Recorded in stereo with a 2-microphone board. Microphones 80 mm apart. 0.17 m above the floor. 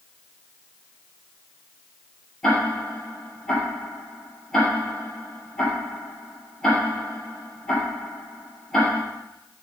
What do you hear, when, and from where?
2.4 s ticking: 5° left (ahead or behind), 4 m